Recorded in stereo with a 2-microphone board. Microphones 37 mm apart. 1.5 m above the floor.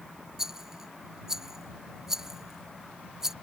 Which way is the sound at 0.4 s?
10° right (ahead or behind).